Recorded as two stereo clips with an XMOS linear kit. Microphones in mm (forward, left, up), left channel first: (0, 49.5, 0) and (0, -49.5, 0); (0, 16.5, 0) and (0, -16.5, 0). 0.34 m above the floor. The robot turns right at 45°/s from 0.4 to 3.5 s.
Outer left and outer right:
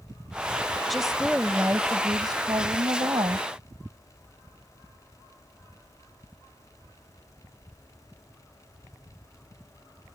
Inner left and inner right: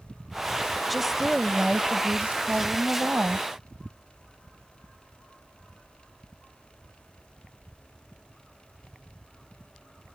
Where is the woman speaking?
175° left; by 3.5 s 65° right.